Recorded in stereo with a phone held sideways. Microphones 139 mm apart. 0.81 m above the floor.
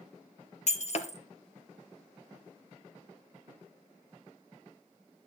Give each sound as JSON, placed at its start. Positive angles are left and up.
{"t": 0.7, "sound": "breaking glass", "side_deg": 55, "distance_m": 1.4}